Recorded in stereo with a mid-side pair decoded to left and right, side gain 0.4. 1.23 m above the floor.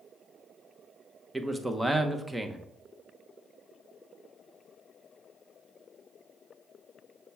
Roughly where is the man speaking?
Ahead.